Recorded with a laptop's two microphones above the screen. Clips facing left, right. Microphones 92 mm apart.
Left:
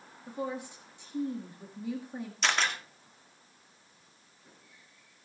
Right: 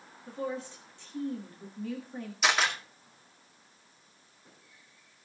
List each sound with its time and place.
0.3 s a woman speaking: 15° left (ahead or behind), 1.5 m
2.4 s a camera shutter: 5° right (ahead or behind), 2 m